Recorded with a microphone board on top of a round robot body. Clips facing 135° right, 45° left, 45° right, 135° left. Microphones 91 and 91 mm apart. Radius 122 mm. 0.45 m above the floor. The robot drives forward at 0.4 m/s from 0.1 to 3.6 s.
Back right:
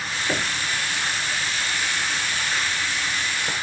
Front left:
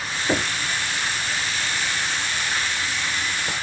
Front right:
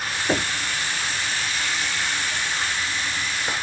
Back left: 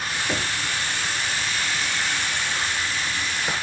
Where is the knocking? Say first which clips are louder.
Front left 4 dB, front right 6 dB; 10° right, 0.9 m; by 0.5 s 15° right, 0.8 m.